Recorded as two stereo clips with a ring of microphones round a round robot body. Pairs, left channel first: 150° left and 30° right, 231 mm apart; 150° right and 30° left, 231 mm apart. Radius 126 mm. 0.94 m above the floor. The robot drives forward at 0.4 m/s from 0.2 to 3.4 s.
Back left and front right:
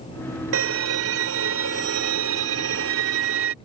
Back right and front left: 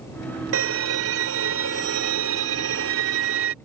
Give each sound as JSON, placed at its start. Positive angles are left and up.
{"t": 0.5, "sound": "a violin", "azimuth_deg": 0}